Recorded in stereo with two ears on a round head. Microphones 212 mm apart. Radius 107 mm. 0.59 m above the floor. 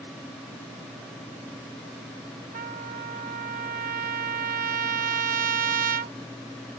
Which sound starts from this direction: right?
A trumpet, at 2.5 s.